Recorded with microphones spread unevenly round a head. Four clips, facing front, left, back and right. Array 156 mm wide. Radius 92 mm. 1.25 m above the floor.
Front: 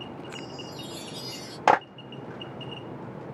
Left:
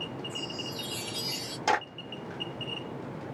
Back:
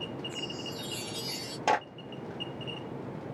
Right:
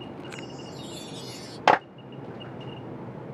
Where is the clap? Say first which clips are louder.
Right 7 dB, front 7 dB; 30° right, 0.8 m.